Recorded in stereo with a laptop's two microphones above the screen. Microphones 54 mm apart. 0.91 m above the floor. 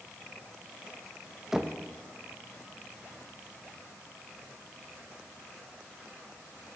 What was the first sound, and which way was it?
Knocking, 10° right (ahead or behind).